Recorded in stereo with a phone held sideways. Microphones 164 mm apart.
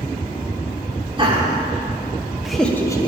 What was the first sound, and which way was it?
Laughter, 30° right (ahead or behind).